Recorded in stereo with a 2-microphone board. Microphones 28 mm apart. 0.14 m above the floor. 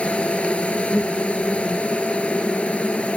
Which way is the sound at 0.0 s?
55° left (ahead or behind).